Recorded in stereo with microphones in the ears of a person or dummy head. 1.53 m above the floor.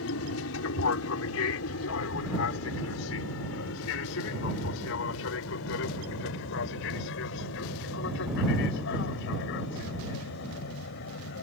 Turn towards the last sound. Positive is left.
turn(degrees=65)  # may be behind; listen again after turning